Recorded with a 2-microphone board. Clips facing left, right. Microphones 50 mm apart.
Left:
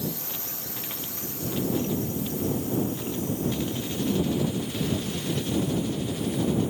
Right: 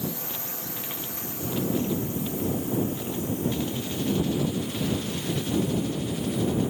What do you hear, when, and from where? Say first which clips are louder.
0.0 s a drone: even; 15° right (ahead or behind)